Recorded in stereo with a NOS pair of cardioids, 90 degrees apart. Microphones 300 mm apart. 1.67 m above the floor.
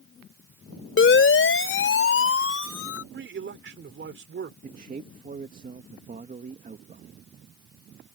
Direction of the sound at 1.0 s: 40° left.